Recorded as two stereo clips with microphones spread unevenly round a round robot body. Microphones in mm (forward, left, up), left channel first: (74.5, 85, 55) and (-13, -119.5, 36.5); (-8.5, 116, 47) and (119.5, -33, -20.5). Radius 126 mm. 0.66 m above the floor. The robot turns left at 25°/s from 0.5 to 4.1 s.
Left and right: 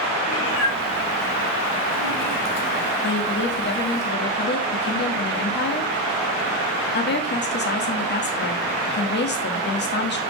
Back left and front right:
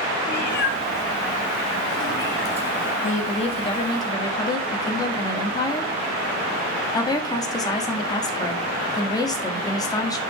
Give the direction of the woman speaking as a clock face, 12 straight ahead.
10 o'clock.